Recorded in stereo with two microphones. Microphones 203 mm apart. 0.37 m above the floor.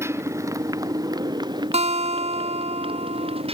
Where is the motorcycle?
15° right (ahead or behind); by 3.5 s 30° right (ahead or behind).